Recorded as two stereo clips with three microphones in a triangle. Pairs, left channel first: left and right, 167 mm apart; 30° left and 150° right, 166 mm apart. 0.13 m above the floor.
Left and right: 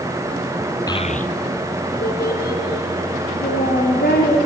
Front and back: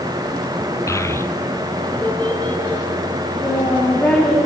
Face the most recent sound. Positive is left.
turn(degrees=110)